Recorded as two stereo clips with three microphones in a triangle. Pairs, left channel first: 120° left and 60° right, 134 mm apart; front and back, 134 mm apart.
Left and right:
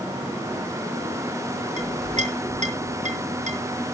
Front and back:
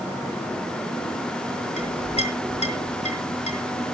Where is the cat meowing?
No cat meowing in this recording.